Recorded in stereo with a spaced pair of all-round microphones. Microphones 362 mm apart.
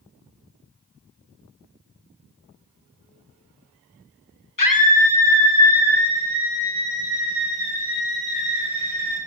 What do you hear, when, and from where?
4.6 s a scream: 60° left (ahead or behind), 1.2 m; by 9.2 s 75° left (ahead or behind), 7 m